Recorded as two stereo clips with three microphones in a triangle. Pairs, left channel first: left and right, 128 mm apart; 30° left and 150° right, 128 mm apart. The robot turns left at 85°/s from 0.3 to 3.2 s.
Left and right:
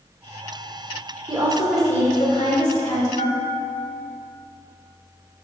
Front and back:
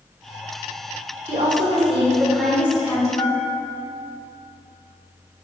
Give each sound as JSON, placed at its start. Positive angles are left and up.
{"t": 1.3, "sound": "a woman speaking", "azimuth_deg": -140, "distance_m": 2.5}
{"t": 3.2, "sound": "a bell", "azimuth_deg": 85, "distance_m": 1.0}